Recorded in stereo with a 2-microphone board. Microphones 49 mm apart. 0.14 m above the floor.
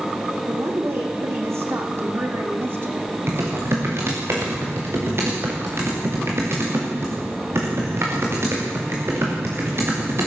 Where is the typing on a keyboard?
55° right (ahead or behind), 7 m.